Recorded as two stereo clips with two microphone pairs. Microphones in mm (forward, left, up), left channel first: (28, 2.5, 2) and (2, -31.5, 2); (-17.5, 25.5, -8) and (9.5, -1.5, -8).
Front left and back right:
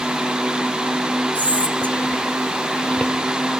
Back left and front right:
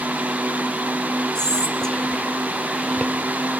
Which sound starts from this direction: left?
Whispering, at 1.4 s.